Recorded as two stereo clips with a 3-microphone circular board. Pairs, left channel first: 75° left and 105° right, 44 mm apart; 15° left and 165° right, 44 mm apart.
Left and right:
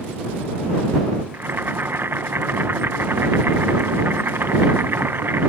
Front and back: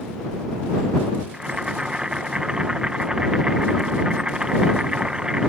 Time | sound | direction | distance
1.3 | boiling | 100° right | ?